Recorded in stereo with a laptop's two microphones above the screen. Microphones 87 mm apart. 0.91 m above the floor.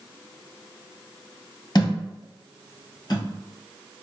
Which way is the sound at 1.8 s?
50° left (ahead or behind).